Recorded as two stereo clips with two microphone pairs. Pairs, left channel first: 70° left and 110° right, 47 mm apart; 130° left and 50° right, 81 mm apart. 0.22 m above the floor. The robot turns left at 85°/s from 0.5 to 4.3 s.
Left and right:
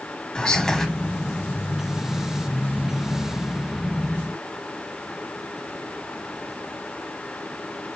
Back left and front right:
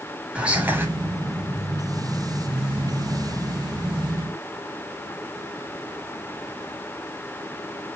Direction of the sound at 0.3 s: 15° left.